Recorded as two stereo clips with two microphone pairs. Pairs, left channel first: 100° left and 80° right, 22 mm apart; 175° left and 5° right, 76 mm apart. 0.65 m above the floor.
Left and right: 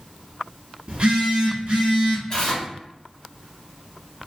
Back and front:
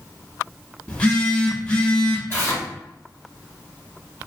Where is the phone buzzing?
115° right, 1.1 m.